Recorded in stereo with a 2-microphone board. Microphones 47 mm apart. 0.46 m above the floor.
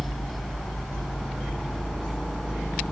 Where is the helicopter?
5° right (ahead or behind); by 2.9 s centre (ahead or behind).